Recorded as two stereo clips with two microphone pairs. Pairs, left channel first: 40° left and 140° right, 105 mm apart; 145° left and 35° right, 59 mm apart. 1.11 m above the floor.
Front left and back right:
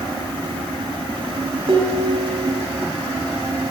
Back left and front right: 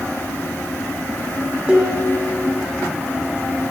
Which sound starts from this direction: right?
Dishes clattering, at 1.7 s.